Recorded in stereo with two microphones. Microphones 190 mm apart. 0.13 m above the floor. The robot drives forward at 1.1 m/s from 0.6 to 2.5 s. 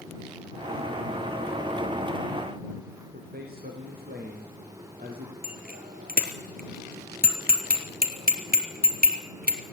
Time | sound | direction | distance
3.1 | a man speaking | 55° right (ahead or behind) | 5.5 m
5.4 | a bicycle bell | 55° right (ahead or behind) | 2.5 m